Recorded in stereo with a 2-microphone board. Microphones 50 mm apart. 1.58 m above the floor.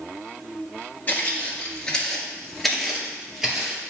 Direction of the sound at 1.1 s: 30° left (ahead or behind).